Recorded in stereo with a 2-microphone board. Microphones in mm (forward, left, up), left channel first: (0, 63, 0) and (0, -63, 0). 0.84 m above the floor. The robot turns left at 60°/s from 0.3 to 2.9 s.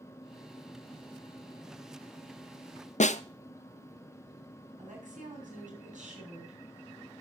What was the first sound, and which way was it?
A snare drum, 70° left (ahead or behind).